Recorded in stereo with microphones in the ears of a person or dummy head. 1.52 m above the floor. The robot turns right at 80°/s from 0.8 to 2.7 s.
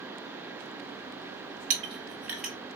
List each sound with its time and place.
1.7 s a clink: 45° right (ahead or behind), 0.8 m; by 2.5 s centre (ahead or behind), 0.8 m